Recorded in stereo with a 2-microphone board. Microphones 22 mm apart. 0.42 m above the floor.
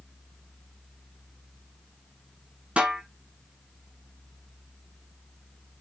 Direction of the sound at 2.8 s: 70° right (ahead or behind).